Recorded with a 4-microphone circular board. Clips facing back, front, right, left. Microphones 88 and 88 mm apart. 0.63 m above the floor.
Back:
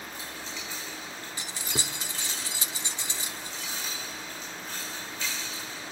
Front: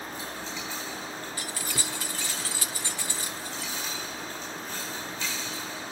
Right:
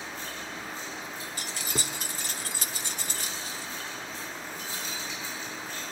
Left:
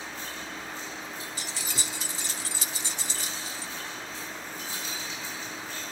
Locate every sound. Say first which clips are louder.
1.4 s keys jangling: back 2 dB, right 2 dB; 115° right, 0.7 m